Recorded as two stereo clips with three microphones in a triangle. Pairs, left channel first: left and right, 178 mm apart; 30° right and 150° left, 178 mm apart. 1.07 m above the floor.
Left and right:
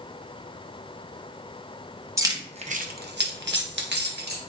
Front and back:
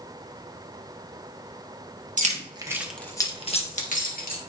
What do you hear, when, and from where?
2.2 s keys jangling: 160° right, 1.1 m; by 4.4 s 65° right, 1.9 m